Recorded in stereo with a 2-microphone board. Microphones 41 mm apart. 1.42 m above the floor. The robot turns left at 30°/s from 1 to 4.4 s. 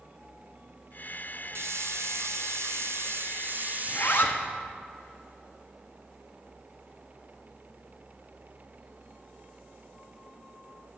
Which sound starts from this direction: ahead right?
A hiss, at 1.6 s.